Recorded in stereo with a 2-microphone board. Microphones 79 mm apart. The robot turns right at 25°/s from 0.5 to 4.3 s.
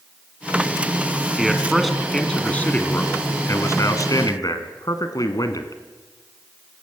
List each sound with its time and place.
1.4 s a man speaking: 10° right, 2 m; by 5.8 s 65° left, 2 m